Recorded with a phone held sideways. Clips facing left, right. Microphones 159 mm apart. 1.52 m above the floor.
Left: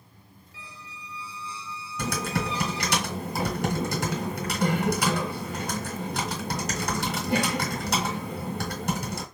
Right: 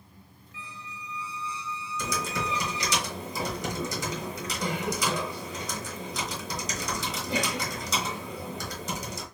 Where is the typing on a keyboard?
60° left (ahead or behind), 2.5 m.